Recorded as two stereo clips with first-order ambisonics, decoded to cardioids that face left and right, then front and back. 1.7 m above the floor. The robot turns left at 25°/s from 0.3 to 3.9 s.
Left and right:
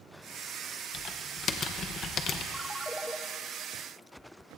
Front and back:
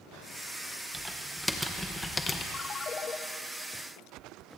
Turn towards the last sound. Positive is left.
turn(degrees=-20)